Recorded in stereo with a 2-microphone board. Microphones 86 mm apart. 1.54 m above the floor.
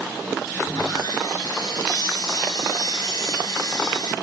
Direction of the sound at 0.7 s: 55° left (ahead or behind).